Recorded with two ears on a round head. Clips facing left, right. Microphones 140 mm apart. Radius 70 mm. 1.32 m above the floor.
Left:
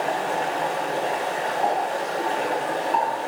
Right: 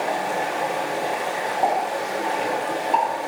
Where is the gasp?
I don't hear a gasp.